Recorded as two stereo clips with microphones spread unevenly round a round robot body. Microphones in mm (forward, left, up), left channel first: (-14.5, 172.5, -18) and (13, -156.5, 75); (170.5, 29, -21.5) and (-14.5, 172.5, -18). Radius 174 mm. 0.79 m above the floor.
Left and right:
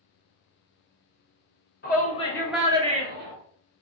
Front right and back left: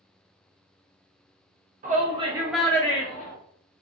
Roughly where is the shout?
Left.